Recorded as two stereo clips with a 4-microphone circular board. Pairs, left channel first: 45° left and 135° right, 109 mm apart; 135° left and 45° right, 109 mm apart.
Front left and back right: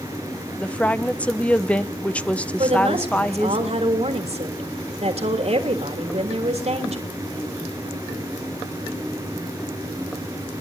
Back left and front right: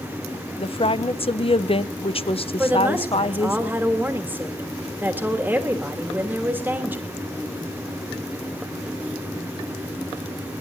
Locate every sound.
0.6 s a woman speaking: 120° left, 0.7 m
2.6 s a woman speaking: 120° right, 3 m